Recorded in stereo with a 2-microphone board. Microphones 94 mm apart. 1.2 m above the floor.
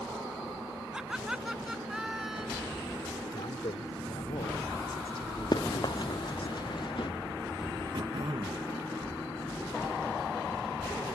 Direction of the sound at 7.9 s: 55° right (ahead or behind).